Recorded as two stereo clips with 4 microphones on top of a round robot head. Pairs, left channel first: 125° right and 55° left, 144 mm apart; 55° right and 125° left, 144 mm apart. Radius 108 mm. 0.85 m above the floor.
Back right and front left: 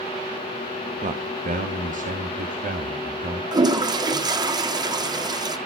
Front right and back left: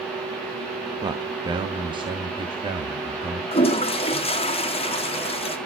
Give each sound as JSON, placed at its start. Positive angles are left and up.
{"t": 1.0, "sound": "a man speaking", "azimuth_deg": 70, "distance_m": 1.6}
{"t": 3.5, "sound": "a toilet flushing", "azimuth_deg": -5, "distance_m": 1.9}